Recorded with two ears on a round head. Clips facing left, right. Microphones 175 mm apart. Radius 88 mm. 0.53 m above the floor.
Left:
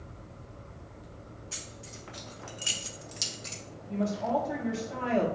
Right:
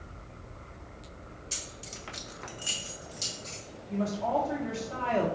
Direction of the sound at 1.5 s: 50° right (ahead or behind).